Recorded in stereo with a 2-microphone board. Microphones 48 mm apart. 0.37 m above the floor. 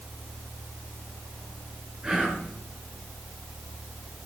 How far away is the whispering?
About 4 m.